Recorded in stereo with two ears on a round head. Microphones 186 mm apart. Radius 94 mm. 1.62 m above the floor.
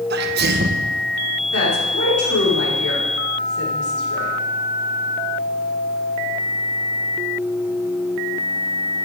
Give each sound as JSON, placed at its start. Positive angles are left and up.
{"t": 0.1, "sound": "a sneeze", "side_deg": -50, "distance_m": 1.1}
{"t": 1.5, "sound": "a woman speaking", "side_deg": 85, "distance_m": 5.5}